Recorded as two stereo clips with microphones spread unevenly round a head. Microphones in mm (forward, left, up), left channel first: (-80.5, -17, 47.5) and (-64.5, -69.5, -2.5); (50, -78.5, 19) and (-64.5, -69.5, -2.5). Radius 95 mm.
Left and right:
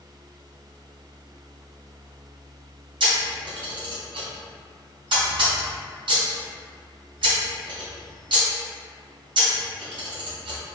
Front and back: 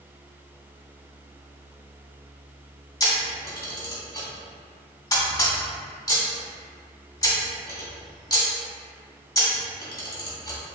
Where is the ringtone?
No ringtone in this recording.